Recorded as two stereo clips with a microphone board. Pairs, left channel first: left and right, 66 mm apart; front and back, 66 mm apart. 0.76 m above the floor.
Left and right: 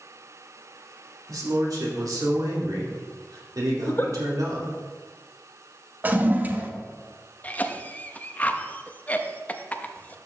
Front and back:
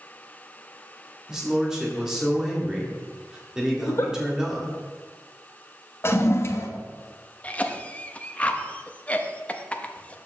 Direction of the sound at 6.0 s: 35° right.